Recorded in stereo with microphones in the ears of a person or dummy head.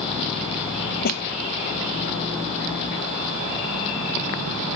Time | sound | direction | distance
1.0 | a snare drum | 60° left (ahead or behind) | ?